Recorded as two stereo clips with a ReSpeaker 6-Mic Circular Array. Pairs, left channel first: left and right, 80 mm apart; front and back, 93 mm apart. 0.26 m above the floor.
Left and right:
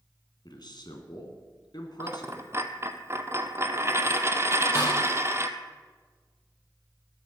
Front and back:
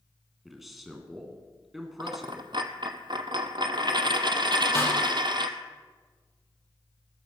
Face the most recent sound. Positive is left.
turn(degrees=60)